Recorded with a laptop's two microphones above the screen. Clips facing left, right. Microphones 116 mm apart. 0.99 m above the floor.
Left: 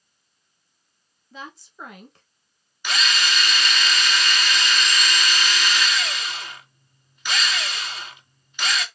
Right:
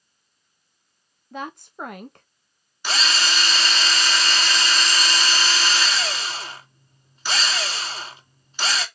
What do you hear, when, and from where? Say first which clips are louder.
1.3 s a woman speaking: right 7 dB; 50° right (ahead or behind), 0.7 m
2.8 s a drill: even; 30° right (ahead or behind), 1.0 m